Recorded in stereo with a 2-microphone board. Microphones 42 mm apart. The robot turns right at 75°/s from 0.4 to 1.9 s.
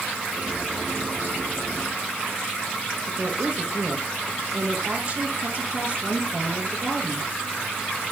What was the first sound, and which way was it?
A woman speaking, 35° right (ahead or behind).